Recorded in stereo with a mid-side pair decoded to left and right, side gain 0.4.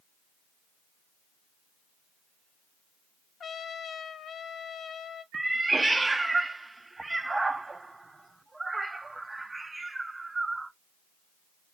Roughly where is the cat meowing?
Ahead right.